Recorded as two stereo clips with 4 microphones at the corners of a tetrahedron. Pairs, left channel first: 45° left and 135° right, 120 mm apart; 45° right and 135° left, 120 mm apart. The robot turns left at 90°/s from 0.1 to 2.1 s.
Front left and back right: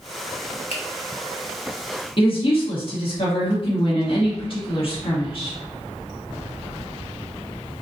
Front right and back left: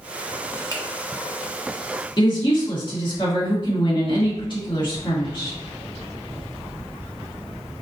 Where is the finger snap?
20° left, 1.0 m; by 0.8 s 5° left, 1.0 m.